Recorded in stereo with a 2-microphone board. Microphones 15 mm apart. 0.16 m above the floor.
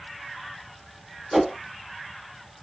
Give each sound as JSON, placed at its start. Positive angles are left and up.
{"t": 1.3, "sound": "a whoosh", "side_deg": 5, "distance_m": 0.5}